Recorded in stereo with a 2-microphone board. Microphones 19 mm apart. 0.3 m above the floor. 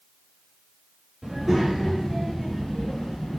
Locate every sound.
1.2 s a child speaking: 25° right (ahead or behind), 0.9 m; by 3.4 s 55° left (ahead or behind), 1.3 m